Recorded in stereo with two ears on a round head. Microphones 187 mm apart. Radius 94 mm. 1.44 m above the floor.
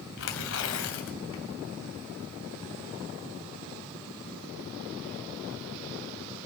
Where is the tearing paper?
60° left (ahead or behind), 2.5 m.